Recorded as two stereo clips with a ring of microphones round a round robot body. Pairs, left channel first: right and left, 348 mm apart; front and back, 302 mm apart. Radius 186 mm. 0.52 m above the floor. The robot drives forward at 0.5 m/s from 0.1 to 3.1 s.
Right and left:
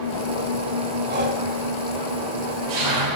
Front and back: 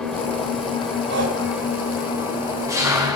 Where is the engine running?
85° left, 5.5 m; by 3.1 s 105° left, 5.5 m.